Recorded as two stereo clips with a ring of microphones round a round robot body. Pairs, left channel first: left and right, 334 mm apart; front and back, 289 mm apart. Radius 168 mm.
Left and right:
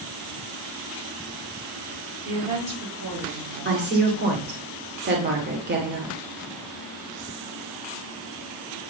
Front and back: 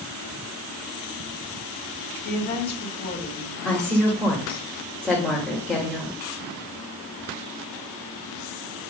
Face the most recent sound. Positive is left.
turn(degrees=-85)